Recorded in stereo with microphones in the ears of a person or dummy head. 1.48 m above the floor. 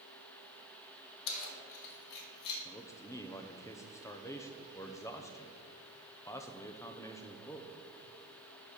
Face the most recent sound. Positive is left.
turn(degrees=15)  # may be behind; listen again after turning